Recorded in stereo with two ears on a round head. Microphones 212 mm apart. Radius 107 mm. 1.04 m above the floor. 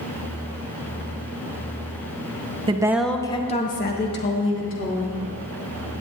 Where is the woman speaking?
25° right (ahead or behind), 0.8 m; by 5.2 s 65° left (ahead or behind), 2.0 m.